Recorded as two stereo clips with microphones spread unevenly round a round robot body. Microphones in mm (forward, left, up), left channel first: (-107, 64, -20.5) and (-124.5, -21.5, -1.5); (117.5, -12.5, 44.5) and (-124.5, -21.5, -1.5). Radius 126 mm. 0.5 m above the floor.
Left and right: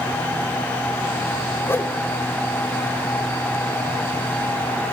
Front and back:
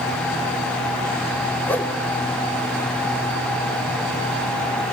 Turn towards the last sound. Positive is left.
turn(degrees=95)